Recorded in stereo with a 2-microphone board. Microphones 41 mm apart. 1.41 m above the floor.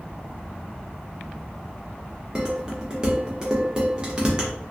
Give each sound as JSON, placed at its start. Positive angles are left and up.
{"t": 2.4, "sound": "dishes clattering", "side_deg": -20, "distance_m": 0.8}